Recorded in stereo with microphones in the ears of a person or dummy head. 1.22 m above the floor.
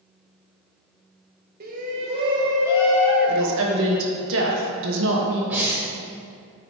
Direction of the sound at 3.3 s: 65° right (ahead or behind).